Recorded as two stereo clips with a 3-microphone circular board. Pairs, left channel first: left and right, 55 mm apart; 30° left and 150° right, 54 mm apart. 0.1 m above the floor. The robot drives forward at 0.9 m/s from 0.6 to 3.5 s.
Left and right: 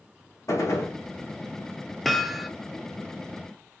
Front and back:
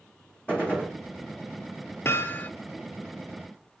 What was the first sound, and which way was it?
A gunshot, 95° left.